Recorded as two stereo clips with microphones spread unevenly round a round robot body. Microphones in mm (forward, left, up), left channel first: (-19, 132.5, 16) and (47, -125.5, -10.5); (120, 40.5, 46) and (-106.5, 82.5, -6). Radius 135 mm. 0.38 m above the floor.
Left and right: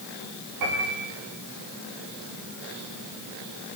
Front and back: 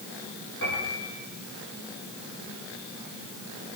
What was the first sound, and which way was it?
A piano, 65° right.